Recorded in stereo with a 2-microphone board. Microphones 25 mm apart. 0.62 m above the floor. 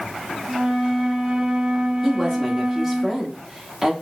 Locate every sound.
0.5 s a flute: 50° right (ahead or behind), 1.4 m
2.0 s a woman speaking: 10° right (ahead or behind), 1.2 m